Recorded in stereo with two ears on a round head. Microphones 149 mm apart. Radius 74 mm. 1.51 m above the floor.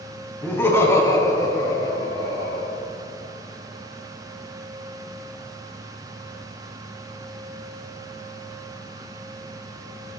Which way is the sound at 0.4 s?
15° left (ahead or behind).